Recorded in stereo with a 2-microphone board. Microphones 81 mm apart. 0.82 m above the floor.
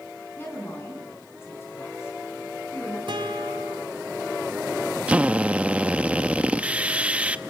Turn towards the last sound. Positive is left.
turn(degrees=-15)  # may be behind; listen again after turning